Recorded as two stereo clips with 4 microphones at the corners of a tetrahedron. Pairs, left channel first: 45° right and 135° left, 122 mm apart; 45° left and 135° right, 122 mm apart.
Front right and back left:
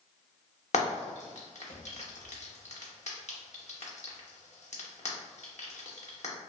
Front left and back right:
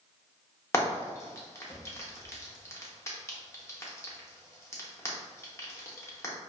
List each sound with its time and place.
0.7 s frying: 20° right, 0.6 m